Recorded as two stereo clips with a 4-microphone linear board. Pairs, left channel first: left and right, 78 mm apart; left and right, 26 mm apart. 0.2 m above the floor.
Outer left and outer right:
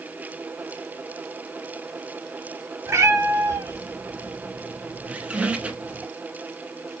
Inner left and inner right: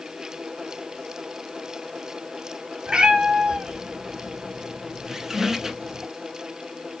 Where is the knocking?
I don't hear knocking.